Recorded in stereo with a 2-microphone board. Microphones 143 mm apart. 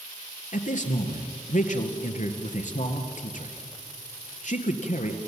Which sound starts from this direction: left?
A man speaking, at 0.5 s.